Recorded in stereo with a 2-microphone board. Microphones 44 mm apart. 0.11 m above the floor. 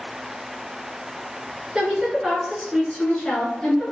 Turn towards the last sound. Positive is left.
turn(degrees=30)  # may be behind; listen again after turning